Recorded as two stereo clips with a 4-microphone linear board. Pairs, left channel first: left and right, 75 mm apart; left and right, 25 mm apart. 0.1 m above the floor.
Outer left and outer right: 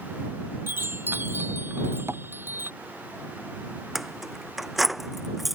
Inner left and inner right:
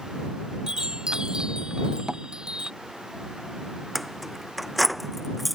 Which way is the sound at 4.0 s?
Centre (ahead or behind).